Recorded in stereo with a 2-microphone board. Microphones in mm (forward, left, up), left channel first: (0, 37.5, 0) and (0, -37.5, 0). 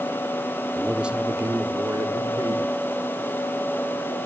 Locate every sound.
0.8 s a man speaking: 5° left (ahead or behind), 1.1 m; by 2.7 s 65° right (ahead or behind), 2.5 m